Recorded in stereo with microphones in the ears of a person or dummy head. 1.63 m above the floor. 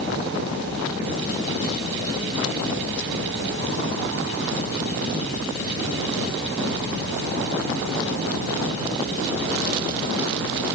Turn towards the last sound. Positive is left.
No sound to turn to.